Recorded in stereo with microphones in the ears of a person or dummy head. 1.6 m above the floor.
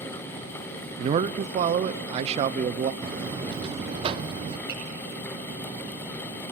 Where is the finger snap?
15° right (ahead or behind), 9.5 m.